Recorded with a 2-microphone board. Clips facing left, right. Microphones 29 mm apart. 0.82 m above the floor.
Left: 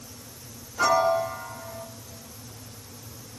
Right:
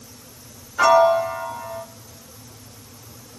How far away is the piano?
About 0.5 m.